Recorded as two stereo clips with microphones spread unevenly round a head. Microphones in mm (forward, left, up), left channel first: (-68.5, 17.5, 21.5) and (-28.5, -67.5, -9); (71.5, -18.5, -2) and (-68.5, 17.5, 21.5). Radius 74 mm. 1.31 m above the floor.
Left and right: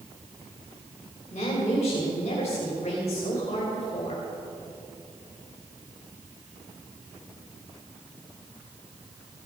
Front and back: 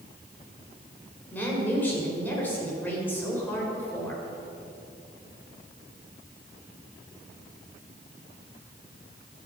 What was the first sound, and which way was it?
A woman speaking, 65° left.